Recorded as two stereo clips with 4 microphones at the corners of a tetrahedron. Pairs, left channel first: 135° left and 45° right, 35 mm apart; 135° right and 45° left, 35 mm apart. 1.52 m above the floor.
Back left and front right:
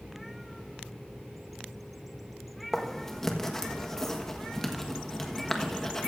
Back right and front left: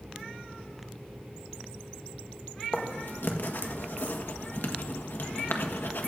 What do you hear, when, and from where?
2.7 s writing: 145° right, 1.4 m